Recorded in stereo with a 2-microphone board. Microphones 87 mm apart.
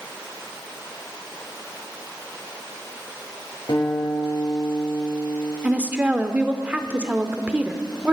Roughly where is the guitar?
Left.